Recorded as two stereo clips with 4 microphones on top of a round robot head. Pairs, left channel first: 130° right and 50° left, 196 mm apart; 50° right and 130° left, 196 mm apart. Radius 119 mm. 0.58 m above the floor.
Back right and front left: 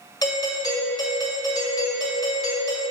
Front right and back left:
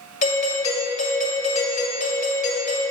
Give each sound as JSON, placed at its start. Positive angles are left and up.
{"t": 0.2, "sound": "a doorbell", "azimuth_deg": -70, "distance_m": 1.9}